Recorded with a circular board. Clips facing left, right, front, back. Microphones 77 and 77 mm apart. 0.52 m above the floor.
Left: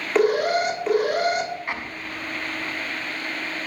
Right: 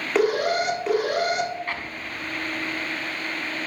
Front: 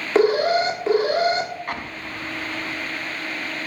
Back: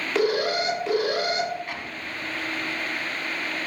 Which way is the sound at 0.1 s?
5° right.